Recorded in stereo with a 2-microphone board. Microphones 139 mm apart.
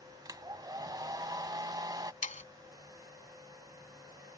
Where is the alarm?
I don't hear an alarm.